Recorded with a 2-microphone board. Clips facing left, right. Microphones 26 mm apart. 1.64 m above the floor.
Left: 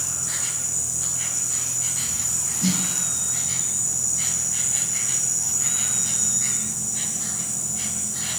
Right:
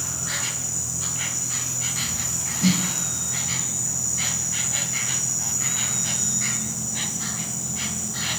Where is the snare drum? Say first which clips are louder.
Right 3 dB; 15° left (ahead or behind), 5.5 m.